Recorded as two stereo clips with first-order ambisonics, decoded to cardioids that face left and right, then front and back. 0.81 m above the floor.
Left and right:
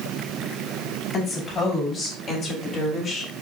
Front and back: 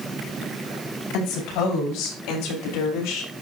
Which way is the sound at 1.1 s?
20° left.